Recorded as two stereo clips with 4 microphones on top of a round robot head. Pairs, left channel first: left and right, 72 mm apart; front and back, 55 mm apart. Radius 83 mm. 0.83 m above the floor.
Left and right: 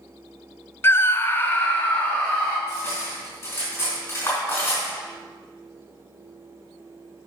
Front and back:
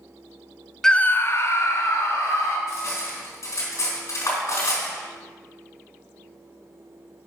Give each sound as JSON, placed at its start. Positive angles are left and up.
{"t": 0.8, "sound": "a scream", "azimuth_deg": 75, "distance_m": 0.5}
{"t": 2.7, "sound": "cutlery clinking", "azimuth_deg": 25, "distance_m": 3.5}